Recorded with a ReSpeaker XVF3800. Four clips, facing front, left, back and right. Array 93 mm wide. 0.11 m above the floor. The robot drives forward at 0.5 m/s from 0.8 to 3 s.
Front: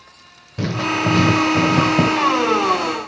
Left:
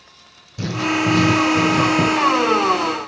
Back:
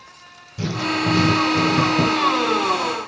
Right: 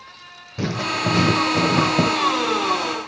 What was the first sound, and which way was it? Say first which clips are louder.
Writing: left 3 dB, front 2 dB; 45° right.